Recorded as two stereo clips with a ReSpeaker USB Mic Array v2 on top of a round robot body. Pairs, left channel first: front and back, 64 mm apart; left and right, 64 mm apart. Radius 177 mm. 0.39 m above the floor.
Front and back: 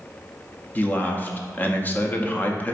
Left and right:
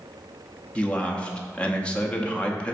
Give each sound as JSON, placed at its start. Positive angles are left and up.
{"t": 0.8, "sound": "a man speaking", "azimuth_deg": 30, "distance_m": 0.9}